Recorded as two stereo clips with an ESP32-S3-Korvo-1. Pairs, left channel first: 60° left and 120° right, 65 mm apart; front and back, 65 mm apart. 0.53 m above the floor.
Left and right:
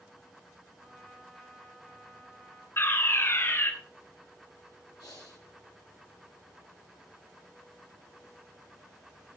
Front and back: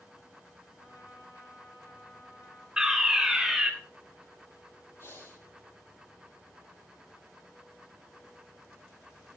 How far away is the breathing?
About 9 m.